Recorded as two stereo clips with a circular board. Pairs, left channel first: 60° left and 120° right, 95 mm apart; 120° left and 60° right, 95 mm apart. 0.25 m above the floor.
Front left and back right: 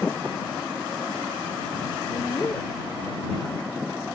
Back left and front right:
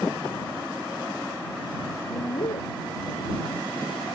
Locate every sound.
2.1 s a woman speaking: 120° left